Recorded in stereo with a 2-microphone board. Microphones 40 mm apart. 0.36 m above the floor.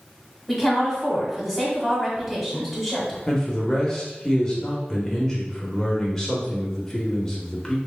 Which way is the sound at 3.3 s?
15° left (ahead or behind).